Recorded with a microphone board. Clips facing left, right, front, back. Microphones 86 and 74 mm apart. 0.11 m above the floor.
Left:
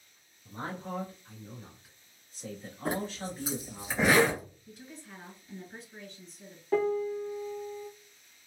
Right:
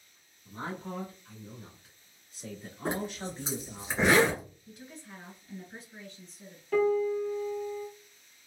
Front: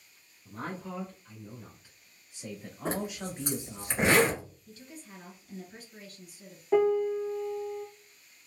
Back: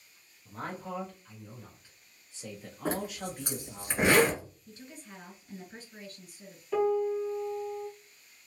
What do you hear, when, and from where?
0.5 s a man speaking: 85° left, 1.6 m; by 3.9 s 50° right, 1.6 m
2.9 s a zipper: 100° right, 1.8 m
4.7 s a woman speaking: straight behind, 1.6 m
6.7 s a piano: 35° left, 0.7 m